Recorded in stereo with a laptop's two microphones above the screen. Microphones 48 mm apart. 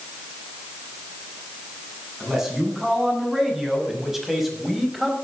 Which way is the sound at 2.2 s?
10° right (ahead or behind).